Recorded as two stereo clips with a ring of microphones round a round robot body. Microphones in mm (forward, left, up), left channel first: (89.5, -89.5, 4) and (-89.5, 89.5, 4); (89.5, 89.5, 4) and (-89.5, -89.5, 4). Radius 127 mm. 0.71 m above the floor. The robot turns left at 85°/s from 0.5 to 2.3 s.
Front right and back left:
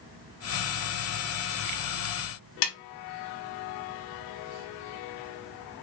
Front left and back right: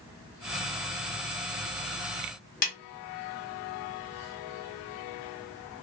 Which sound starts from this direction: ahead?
A snare drum, at 2.6 s.